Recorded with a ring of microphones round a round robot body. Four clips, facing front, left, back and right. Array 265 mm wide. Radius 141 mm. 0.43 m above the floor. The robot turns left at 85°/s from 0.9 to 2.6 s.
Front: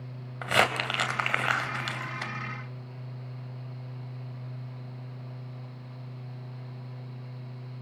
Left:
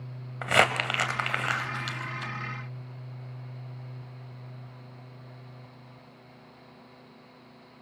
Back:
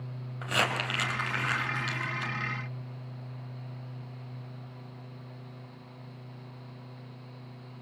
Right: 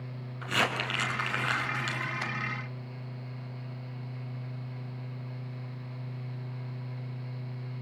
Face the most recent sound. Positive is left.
turn(degrees=-80)